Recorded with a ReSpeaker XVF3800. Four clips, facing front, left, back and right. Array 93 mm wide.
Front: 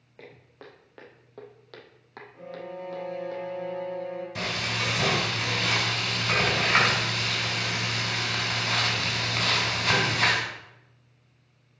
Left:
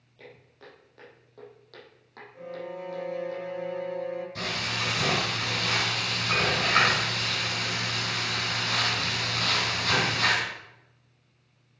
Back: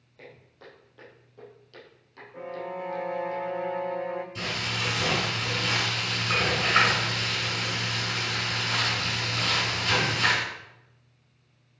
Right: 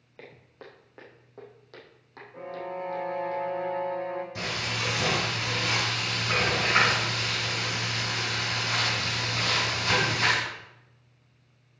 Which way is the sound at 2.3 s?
145° right.